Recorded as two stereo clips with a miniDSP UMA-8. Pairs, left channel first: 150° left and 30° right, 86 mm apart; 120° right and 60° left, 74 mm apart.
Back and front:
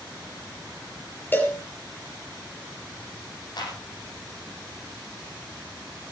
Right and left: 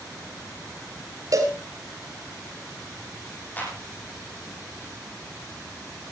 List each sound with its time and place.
1.3 s a cowbell: 85° left, 3.5 m
3.6 s a clap: 175° left, 6.5 m